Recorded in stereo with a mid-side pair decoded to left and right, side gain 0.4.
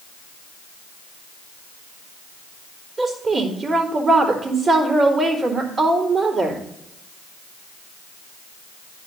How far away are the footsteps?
I don't hear footsteps.